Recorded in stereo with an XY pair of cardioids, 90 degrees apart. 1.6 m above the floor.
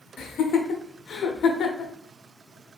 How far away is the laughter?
About 0.8 m.